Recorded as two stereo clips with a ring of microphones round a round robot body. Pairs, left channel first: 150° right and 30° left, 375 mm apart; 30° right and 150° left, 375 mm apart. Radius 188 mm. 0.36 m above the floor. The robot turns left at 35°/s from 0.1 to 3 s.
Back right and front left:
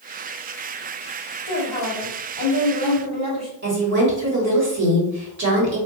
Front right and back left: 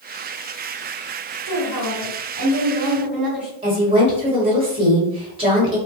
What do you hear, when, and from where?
1.4 s a woman speaking: 115° left, 1.8 m; by 3.5 s 65° left, 1.8 m
3.6 s a woman speaking: 80° left, 1.2 m